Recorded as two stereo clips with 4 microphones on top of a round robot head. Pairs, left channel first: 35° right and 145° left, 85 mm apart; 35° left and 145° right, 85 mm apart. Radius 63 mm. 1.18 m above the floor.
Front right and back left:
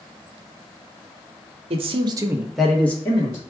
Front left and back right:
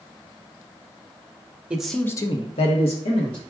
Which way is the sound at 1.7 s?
135° left.